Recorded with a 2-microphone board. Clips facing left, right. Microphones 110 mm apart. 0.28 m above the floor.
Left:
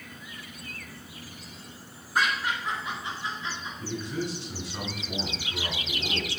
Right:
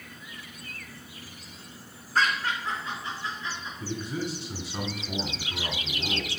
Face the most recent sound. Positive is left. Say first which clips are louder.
# even
turn(degrees=-15)  # may be behind; listen again after turning